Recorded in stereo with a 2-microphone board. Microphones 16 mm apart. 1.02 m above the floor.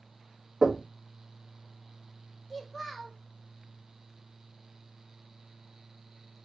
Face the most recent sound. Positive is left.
turn(degrees=10)  # may be behind; listen again after turning